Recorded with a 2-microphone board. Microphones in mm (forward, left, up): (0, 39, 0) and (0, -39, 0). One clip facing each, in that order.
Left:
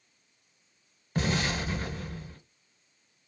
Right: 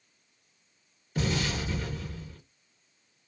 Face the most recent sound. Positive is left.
turn(degrees=50)  # may be behind; listen again after turning